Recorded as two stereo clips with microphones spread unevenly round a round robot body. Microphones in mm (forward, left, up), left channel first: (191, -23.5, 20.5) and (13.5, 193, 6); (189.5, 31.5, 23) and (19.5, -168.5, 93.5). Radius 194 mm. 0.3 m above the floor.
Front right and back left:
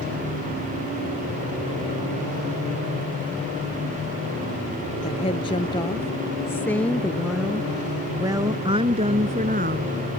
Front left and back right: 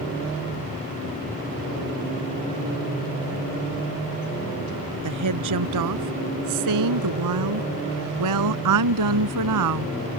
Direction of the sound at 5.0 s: 125° right.